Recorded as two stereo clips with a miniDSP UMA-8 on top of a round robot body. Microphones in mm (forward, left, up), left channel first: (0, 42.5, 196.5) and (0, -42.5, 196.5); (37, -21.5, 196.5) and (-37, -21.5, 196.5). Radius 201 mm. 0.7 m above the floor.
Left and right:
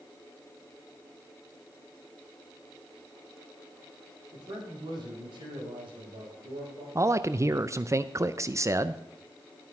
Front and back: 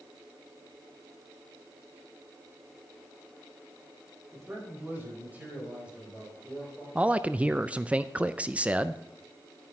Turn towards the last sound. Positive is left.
turn(degrees=-115)